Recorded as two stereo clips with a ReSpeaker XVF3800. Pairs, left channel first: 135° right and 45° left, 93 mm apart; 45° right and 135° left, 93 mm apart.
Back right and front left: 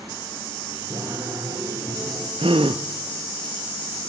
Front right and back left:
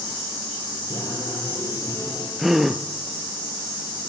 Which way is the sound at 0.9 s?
5° right.